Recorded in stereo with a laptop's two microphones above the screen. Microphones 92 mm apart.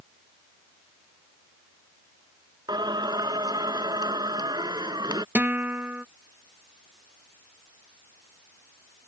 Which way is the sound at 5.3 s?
20° right (ahead or behind).